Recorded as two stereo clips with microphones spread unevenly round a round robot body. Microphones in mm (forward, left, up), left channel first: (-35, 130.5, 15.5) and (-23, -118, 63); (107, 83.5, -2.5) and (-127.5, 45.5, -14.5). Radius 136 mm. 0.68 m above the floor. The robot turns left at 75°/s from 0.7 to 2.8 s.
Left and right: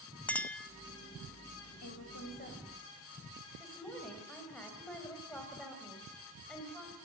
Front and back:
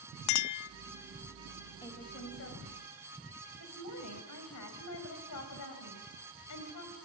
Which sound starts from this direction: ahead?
A clink, at 0.3 s.